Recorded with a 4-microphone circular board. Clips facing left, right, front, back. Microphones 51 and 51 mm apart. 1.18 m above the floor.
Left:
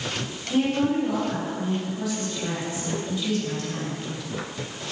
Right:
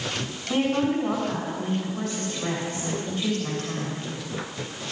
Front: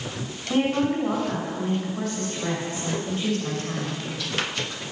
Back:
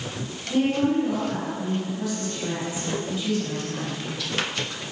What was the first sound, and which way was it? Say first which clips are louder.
A woman speaking: left 1 dB, back 1 dB; 45° right.